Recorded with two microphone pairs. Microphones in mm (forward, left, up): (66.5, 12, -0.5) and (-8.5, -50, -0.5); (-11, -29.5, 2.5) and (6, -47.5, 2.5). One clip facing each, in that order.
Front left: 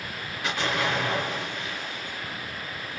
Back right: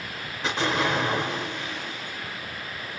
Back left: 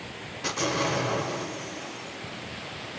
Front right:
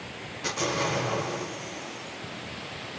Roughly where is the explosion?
Behind right.